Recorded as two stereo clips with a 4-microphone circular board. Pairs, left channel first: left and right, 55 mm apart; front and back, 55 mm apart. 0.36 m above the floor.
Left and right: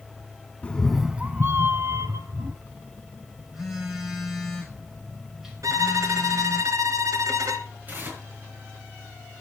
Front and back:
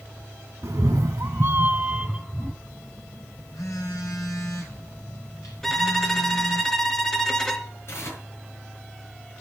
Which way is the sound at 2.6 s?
5° right.